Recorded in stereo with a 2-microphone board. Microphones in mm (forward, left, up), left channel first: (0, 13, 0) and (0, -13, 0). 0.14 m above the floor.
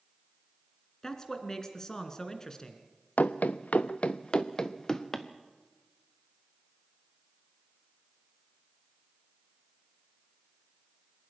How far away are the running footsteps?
About 0.8 m.